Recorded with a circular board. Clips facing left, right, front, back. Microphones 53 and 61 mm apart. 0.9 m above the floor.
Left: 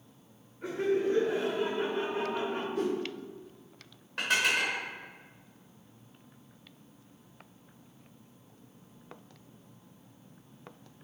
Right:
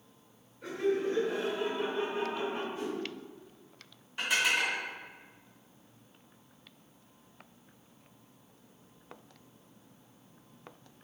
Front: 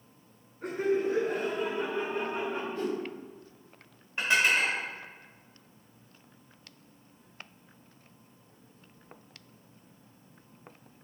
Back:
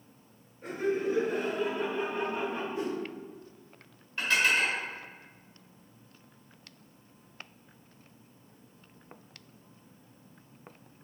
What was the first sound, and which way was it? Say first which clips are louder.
Laughter: left 2 dB, front 2 dB; 30° left.